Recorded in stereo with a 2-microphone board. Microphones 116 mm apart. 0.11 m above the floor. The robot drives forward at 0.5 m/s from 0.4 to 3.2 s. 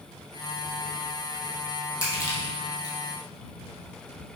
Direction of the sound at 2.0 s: 30° left (ahead or behind).